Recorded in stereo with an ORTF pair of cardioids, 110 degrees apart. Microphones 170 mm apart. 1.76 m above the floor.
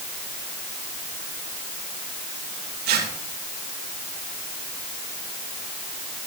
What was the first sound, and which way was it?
Tearing paper, 65° right.